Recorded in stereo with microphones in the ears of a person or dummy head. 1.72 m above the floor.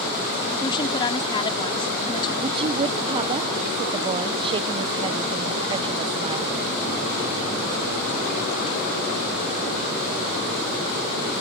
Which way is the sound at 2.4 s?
35° right (ahead or behind).